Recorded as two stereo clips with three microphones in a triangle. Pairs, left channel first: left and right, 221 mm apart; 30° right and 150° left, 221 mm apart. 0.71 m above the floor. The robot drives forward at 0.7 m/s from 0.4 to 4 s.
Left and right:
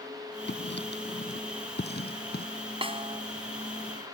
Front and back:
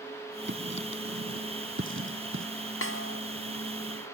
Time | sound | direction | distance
0.5 | writing | 125° left | ?
2.8 | a snare drum | 25° right | ?